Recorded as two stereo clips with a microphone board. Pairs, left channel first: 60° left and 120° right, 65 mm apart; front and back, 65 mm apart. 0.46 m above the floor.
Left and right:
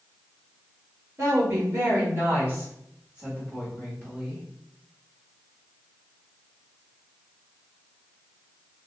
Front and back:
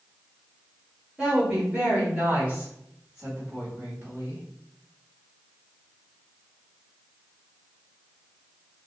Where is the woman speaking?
105° right, 1.5 m; by 4.4 s 145° left, 1.5 m.